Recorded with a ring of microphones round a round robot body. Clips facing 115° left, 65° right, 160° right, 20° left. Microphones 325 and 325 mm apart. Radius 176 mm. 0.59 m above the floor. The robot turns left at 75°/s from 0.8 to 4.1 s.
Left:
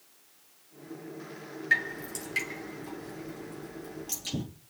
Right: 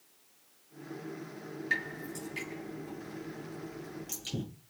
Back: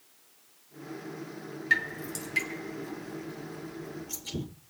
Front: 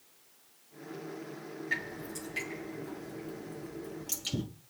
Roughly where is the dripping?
Behind right.